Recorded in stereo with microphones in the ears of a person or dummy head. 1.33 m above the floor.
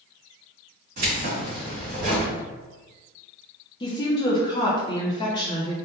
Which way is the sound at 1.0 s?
50° right (ahead or behind).